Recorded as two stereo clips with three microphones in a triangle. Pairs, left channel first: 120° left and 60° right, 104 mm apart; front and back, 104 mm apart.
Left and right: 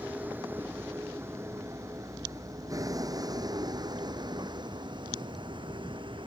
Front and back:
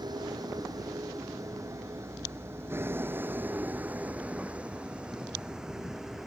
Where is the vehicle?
135° right; by 6.3 s 95° right.